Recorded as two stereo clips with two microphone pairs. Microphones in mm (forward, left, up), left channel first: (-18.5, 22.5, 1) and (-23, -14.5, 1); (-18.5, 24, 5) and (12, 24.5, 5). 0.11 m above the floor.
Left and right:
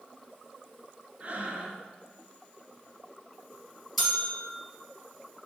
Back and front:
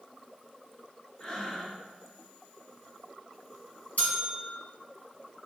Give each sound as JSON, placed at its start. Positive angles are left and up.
{"t": 1.2, "sound": "breathing", "azimuth_deg": -125, "distance_m": 1.4}
{"t": 4.0, "sound": "a bell", "azimuth_deg": 165, "distance_m": 3.0}